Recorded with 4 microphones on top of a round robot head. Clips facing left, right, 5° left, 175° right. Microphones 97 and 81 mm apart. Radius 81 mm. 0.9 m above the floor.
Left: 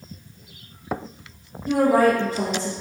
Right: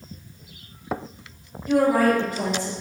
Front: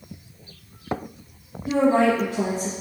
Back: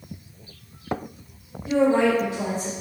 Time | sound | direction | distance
1.7 | a woman speaking | 40° left | 0.8 m